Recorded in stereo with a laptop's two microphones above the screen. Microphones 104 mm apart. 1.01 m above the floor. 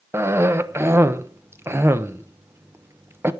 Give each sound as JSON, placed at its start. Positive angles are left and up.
{"t": 0.1, "sound": "a cough", "side_deg": -25, "distance_m": 0.9}